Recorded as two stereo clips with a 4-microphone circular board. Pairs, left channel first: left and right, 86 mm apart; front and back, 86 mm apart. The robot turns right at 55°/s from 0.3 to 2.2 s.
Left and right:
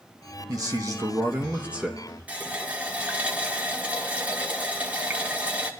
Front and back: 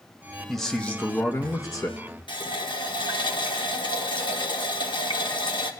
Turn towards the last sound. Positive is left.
turn(degrees=-15)